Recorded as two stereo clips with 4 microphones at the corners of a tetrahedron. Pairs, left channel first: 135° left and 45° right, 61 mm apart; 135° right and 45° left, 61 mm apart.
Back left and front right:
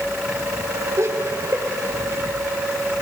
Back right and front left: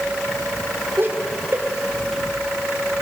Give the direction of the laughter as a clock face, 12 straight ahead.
12 o'clock.